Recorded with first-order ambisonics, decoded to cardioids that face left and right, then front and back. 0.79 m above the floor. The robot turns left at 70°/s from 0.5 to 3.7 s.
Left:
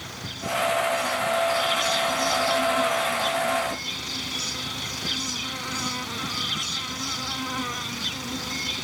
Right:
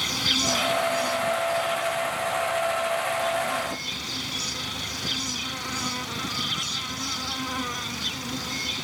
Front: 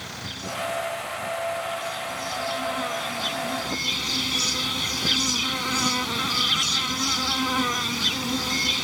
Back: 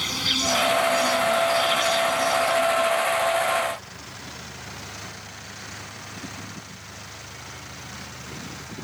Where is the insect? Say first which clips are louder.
Right 11 dB, back 11 dB; 135° right; by 8.8 s straight ahead.